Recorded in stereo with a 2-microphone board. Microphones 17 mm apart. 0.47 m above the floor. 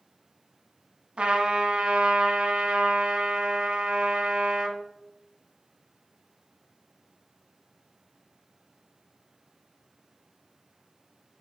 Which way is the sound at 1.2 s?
75° right (ahead or behind).